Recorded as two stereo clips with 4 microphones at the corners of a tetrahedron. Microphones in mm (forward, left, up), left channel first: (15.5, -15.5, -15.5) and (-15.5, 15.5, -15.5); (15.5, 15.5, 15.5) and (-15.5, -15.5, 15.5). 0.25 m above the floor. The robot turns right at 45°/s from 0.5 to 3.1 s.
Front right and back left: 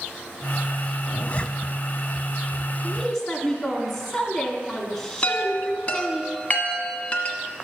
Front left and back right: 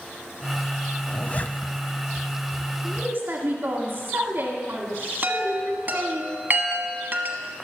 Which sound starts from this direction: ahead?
A zipper, at 1.1 s.